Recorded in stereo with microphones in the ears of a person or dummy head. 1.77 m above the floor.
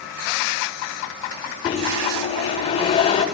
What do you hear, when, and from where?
1.6 s a microwave: 20° left (ahead or behind), 5.5 m